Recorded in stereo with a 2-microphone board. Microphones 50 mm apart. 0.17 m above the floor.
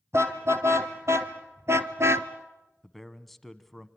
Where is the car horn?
55° right (ahead or behind), 2.5 m.